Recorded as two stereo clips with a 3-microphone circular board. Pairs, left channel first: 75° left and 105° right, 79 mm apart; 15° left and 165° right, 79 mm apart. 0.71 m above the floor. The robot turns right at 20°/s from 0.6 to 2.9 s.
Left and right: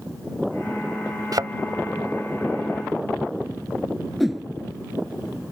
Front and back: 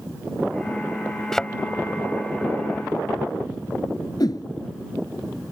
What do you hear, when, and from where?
1.3 s a thud: 70° right; by 1.5 s 65° right
4.2 s a whoosh: 15° right